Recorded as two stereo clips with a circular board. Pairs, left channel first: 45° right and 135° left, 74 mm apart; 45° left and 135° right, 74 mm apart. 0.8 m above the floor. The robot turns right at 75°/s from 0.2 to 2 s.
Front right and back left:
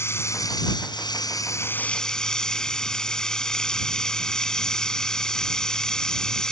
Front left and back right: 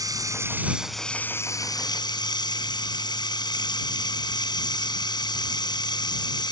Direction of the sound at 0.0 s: 100° right.